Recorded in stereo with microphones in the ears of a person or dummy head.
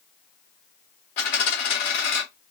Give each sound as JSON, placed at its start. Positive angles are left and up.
{"t": 1.2, "sound": "a dropped coin", "side_deg": 45, "distance_m": 1.3}